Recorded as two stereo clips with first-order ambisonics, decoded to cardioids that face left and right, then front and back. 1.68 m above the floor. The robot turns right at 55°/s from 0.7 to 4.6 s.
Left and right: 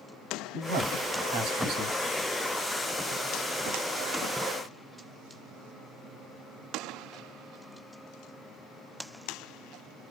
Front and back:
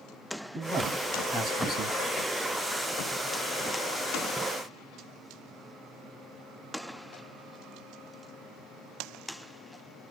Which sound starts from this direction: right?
A man speaking, at 0.5 s.